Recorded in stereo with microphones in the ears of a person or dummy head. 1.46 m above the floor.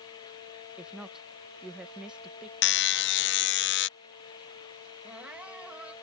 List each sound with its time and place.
0.8 s a woman speaking: 5° right (ahead or behind)
2.6 s a buzzer: 50° left (ahead or behind)
5.0 s crying: 5° right (ahead or behind)